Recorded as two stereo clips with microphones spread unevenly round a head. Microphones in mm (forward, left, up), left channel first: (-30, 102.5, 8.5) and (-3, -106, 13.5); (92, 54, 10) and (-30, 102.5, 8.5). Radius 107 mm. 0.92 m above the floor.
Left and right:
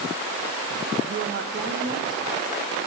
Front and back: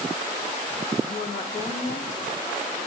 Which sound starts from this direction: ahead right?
A woman speaking, at 1.1 s.